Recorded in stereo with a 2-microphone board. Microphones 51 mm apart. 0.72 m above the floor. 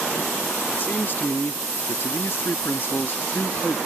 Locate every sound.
0.8 s a man speaking: 45° left (ahead or behind); by 3.8 s 35° left (ahead or behind)